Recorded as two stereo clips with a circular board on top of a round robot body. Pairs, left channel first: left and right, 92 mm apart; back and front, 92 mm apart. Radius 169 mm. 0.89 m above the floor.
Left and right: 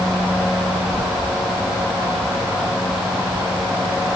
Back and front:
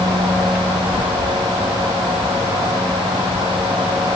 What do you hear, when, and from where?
Only background noise.